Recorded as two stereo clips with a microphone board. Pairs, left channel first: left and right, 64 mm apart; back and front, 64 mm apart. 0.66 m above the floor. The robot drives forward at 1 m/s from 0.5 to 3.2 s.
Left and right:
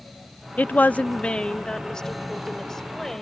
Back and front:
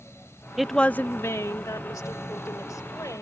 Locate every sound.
0.6 s a woman speaking: 80° left; by 3.2 s 175° left